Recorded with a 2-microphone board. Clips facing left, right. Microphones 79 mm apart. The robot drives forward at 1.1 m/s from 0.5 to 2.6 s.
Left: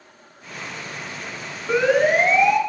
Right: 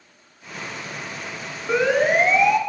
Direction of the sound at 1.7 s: 5° right (ahead or behind).